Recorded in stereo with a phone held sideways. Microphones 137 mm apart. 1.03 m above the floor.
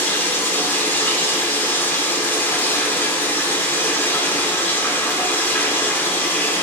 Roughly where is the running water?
Centre.